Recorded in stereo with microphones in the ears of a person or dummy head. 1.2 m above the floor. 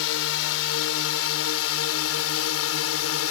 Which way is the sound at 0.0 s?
75° left (ahead or behind).